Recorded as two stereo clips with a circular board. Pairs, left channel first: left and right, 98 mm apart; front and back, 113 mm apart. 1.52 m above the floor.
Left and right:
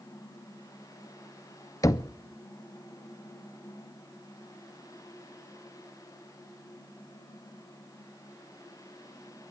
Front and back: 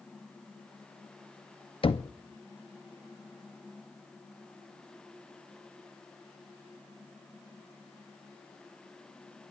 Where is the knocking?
35° left, 0.6 m.